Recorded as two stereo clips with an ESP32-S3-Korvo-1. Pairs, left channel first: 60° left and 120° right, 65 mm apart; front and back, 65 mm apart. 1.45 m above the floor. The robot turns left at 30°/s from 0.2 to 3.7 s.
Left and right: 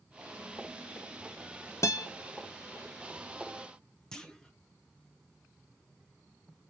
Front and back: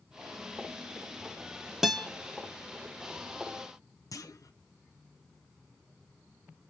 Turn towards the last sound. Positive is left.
turn(degrees=-20)